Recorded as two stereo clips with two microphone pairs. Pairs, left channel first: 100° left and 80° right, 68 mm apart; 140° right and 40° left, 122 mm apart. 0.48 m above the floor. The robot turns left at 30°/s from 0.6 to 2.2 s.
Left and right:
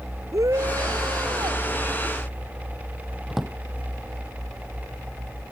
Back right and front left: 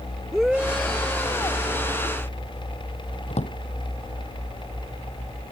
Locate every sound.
0.3 s a shout: 45° right; by 1.6 s 75° right
3.3 s a drawer: 165° right